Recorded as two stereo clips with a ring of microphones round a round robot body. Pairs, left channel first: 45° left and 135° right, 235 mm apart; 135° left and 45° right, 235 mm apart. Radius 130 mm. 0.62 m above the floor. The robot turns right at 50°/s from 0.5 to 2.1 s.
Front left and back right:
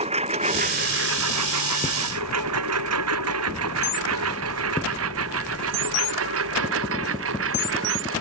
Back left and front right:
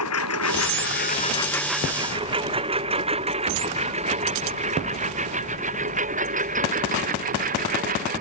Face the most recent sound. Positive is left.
turn(degrees=-100)